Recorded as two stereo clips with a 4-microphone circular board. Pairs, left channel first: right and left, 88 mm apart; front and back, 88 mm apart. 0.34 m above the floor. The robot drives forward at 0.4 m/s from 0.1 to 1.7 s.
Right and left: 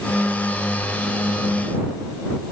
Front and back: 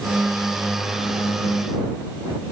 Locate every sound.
Only background noise.